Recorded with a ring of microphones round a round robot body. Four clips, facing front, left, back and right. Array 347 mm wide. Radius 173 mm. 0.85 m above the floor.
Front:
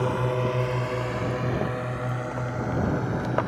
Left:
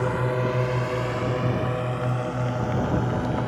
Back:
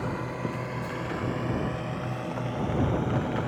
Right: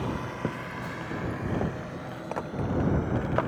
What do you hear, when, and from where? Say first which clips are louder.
0.0 s a drone: left 7 dB, front 7 dB; 45° left; by 3.5 s 85° left